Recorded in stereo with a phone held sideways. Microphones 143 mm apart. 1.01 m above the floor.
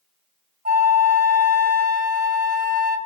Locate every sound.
0.7 s a flute: 70° right (ahead or behind), 1.1 m